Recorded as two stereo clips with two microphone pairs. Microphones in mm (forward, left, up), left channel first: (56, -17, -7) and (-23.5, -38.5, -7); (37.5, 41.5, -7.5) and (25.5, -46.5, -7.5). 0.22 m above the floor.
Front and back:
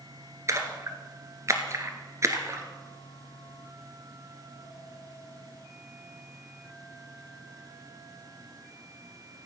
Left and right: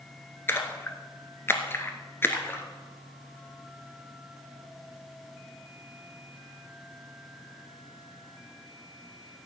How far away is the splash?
About 1.4 m.